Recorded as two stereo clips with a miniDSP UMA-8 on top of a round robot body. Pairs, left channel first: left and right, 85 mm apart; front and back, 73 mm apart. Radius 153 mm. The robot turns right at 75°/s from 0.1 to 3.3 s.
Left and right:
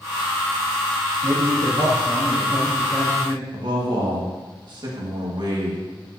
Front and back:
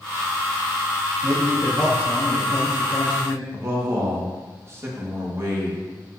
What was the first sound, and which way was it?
A man speaking, 120° right.